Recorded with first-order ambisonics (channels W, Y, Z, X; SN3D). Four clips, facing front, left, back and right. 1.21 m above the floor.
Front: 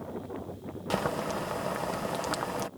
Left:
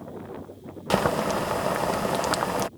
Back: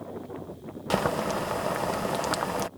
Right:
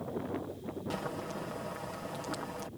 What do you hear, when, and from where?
0.9 s boiling: 105° left